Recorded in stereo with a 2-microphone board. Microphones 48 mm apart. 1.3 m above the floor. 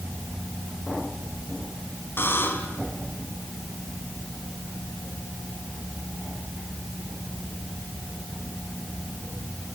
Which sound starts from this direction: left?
A buzzer, at 2.2 s.